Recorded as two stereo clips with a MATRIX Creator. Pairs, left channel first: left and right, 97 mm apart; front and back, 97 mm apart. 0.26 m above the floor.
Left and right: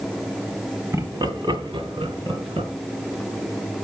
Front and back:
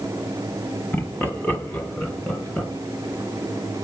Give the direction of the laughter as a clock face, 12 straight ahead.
2 o'clock.